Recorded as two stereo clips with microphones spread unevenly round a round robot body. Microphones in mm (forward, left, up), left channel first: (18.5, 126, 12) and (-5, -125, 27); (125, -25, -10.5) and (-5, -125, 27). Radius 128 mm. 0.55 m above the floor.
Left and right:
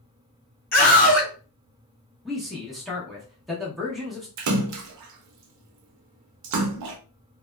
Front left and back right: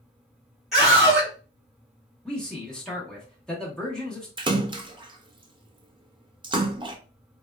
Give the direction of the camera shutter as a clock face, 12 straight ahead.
I don't hear a camera shutter.